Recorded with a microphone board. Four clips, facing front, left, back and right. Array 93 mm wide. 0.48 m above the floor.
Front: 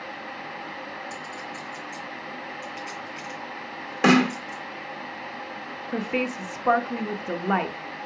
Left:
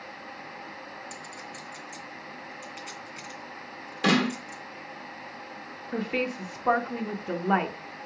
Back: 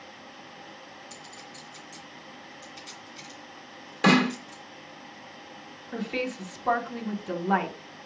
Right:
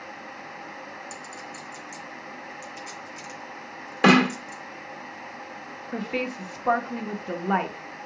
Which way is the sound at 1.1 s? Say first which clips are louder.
Right 2 dB, front 10 dB; 35° left.